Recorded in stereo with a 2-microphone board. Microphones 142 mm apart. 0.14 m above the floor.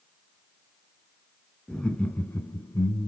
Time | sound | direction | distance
1.7 | laughter | 5° left (ahead or behind) | 1.6 m